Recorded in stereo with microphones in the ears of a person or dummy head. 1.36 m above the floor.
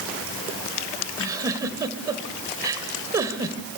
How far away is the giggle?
About 1.7 m.